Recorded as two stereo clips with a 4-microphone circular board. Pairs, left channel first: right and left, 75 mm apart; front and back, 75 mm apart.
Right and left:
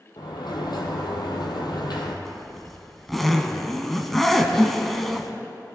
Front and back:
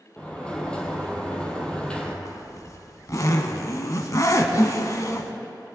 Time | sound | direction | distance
0.2 | a sliding door | 75° right | 1.7 m
2.2 | a zipper | 5° right | 0.9 m